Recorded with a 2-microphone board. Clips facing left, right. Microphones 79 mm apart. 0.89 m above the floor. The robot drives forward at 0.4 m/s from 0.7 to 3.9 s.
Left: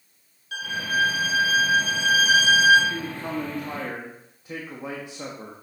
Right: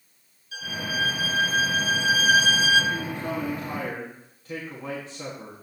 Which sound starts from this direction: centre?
A man speaking, at 2.9 s.